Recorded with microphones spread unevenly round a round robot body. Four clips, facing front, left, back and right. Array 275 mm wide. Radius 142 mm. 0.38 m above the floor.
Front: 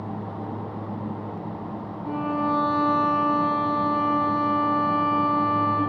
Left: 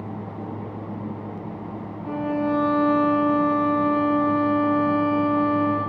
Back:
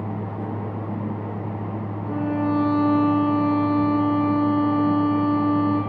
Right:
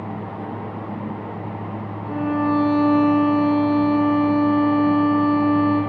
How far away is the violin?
About 1.3 m.